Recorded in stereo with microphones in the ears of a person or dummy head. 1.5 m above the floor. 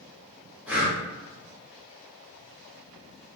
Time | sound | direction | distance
0.7 | breathing | 15° right (ahead or behind) | 1.6 m